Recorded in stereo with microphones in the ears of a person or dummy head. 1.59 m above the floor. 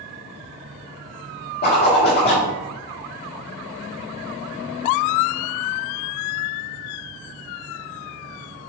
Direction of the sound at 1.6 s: 50° left (ahead or behind).